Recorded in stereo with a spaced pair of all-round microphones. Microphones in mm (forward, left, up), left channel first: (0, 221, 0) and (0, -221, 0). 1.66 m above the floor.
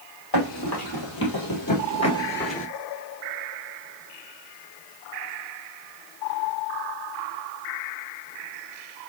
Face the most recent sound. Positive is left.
turn(degrees=15)  # may be behind; listen again after turning